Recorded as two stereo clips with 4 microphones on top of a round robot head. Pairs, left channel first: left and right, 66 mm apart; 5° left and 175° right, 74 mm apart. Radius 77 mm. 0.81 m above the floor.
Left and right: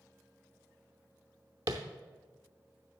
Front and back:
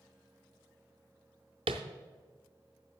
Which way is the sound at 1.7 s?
145° right.